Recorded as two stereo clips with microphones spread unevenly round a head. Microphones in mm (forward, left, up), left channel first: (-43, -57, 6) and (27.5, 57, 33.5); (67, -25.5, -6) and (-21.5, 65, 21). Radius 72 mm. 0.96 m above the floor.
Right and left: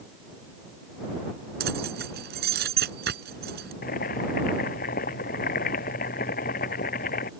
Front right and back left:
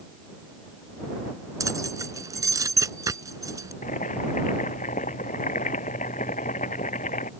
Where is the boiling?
95° right.